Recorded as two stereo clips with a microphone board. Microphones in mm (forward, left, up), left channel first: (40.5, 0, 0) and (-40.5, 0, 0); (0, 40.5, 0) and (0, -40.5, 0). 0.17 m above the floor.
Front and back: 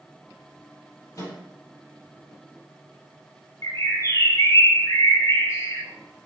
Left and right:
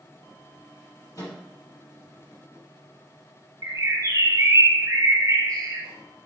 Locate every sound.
1.1 s a microwave: 50° left, 4 m
3.6 s a bird: 45° right, 1.6 m